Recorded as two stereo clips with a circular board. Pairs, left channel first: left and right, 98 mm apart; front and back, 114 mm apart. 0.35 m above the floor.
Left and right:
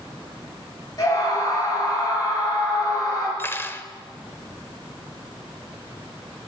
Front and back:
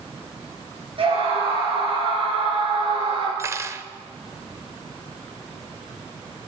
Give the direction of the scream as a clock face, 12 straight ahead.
7 o'clock.